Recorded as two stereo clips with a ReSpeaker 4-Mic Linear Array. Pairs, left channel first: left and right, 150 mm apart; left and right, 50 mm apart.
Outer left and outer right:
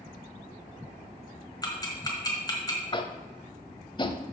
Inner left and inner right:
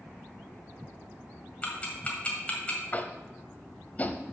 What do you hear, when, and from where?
1.6 s ticking: 25° left (ahead or behind), 1.6 m
2.9 s tapping: 30° left (ahead or behind), 0.6 m